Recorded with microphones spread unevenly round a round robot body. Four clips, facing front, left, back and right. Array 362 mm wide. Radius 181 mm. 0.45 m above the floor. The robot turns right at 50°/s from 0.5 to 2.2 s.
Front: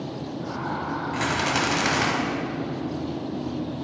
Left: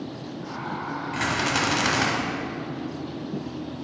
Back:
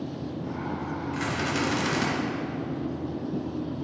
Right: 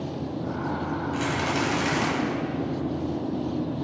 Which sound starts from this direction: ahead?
A rattle, at 1.1 s.